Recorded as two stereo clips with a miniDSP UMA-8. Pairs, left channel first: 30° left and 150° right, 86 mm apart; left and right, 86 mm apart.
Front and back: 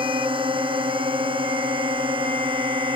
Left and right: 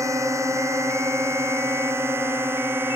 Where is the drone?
145° right; by 3.0 s 155° right.